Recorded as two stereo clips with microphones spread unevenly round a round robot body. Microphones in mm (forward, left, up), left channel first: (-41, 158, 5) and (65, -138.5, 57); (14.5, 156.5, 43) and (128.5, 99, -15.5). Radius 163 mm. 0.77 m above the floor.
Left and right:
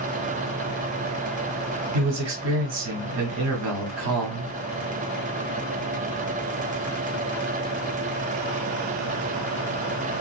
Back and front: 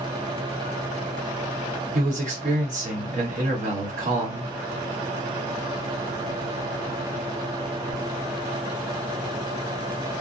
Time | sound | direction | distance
1.9 | a man speaking | 30° right | 1.5 m